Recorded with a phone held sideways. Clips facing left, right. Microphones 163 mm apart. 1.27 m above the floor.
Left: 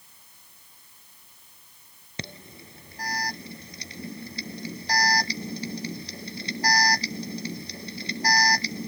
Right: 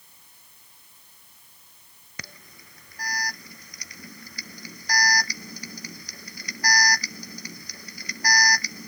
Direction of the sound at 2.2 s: 25° left (ahead or behind).